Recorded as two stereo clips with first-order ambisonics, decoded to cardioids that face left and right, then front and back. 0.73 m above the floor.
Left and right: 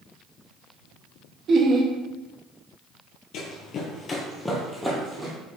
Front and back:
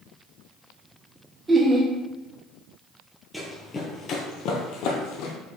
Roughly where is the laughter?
Behind right.